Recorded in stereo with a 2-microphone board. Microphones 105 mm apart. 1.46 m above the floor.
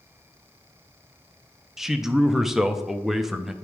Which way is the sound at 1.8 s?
Centre (ahead or behind).